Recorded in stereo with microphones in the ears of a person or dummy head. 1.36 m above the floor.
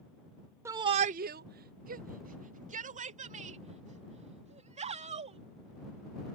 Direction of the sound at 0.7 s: 15° right (ahead or behind).